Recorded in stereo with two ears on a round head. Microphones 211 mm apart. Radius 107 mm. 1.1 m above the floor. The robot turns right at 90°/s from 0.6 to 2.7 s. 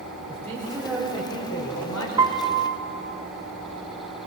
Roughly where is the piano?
Behind.